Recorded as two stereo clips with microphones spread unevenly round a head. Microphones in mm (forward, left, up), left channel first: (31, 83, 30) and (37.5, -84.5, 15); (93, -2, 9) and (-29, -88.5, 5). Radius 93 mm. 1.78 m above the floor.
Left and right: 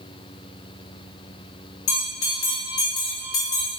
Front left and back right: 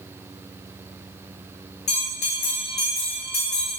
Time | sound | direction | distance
1.9 | a bell | 95° left | 3 m